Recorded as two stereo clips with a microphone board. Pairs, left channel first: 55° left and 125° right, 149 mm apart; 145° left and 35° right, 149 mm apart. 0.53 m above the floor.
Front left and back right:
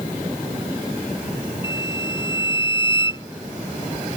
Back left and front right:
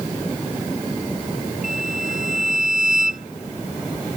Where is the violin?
115° left.